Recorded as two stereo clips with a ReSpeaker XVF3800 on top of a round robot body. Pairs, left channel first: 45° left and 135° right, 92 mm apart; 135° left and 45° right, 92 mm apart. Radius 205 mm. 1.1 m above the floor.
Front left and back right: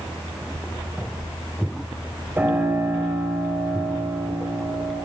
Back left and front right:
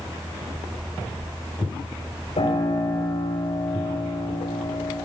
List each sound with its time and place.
2.4 s a piano: 150° left, 6 m